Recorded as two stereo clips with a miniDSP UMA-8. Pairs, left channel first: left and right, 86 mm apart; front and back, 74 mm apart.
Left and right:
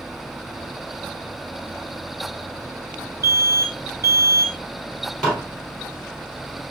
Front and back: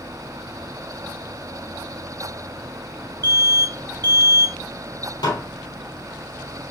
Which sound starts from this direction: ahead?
Dishes clattering, at 5.2 s.